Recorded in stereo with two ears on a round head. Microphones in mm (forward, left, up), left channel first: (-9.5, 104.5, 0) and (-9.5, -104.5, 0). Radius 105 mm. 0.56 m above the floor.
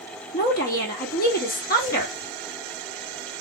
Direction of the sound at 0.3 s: 40° left (ahead or behind).